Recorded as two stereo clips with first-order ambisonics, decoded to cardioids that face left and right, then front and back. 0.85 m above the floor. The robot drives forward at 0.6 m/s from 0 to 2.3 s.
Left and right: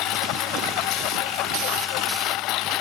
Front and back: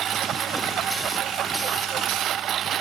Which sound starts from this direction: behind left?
A lawn mower, at 0.0 s.